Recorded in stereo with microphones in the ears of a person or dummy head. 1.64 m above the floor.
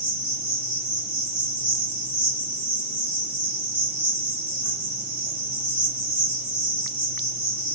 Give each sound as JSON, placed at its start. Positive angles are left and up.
{"t": 0.0, "sound": "an insect", "side_deg": 15, "distance_m": 1.6}